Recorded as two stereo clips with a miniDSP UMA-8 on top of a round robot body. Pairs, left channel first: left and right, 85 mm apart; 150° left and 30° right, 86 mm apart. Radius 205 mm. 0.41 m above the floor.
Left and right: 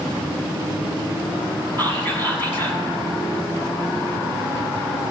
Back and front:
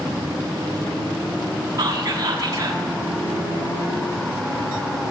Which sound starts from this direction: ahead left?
Whispering, at 1.8 s.